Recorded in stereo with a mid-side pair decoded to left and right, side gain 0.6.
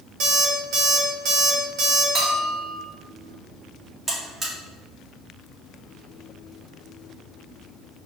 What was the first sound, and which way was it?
An alarm clock, 65° right.